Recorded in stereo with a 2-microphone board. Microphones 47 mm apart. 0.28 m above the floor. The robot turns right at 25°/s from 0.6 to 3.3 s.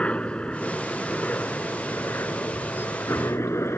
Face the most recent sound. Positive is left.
turn(degrees=65)  # may be behind; listen again after turning